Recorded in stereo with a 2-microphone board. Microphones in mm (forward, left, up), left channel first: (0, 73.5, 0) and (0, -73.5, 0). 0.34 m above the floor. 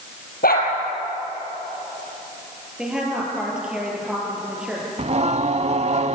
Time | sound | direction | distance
0.4 | a dog barking | 85° left | 4.5 m
2.8 | a woman speaking | 5° right (ahead or behind) | 7 m
5.0 | singing | 45° right (ahead or behind) | 0.6 m